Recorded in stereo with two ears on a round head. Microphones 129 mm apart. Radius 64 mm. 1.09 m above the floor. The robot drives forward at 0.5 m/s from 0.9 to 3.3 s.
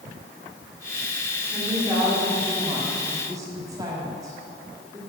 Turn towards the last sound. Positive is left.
turn(degrees=-25)  # may be behind; listen again after turning